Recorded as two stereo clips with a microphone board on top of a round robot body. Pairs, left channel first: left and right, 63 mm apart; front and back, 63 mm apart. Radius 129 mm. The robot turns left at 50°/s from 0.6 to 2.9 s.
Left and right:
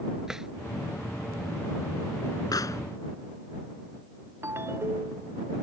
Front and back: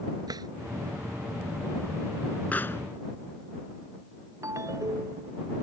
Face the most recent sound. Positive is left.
turn(degrees=-140)